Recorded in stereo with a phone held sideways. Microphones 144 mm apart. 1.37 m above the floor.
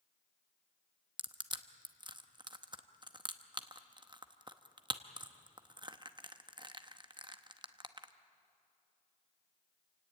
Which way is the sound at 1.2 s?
35° right (ahead or behind).